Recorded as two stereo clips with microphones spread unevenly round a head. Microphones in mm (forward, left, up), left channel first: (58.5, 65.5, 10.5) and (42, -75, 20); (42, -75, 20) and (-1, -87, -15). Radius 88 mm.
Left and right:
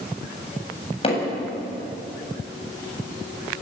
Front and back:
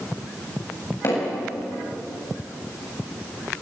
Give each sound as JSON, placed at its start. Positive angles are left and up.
{"t": 1.0, "sound": "hammering", "azimuth_deg": 35, "distance_m": 8.5}